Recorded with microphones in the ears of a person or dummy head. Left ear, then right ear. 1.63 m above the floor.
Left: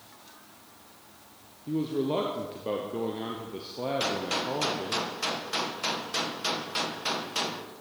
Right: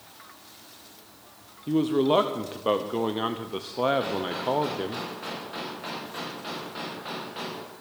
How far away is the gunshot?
About 1.4 m.